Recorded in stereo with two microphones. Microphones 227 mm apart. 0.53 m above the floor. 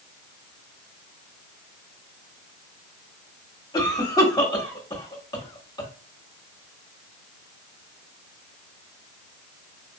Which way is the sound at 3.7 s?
15° left (ahead or behind).